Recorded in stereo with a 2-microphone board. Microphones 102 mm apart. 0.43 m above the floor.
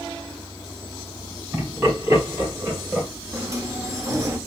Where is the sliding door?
30° right (ahead or behind), 0.8 m.